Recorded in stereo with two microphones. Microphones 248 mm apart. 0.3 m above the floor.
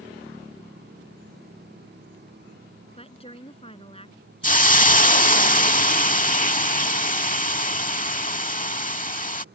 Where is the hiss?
35° left (ahead or behind).